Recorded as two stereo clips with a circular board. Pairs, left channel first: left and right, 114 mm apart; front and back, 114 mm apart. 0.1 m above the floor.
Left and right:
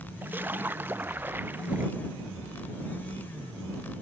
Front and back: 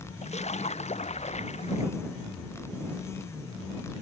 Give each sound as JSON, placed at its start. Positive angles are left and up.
{"t": 0.2, "sound": "a splash", "azimuth_deg": -15}